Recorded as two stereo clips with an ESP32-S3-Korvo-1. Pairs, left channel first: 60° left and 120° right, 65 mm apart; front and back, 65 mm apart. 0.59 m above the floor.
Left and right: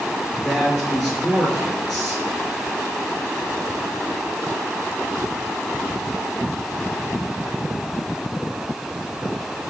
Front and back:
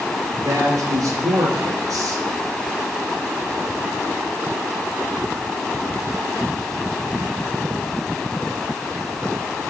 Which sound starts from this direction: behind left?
A man speaking, at 0.3 s.